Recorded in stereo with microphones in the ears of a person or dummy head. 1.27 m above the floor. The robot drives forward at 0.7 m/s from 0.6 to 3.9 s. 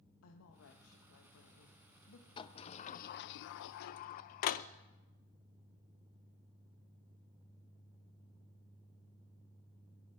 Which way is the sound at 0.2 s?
80° left.